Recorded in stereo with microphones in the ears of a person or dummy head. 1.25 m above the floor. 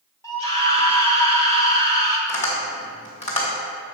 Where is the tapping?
40° left (ahead or behind), 1.8 m.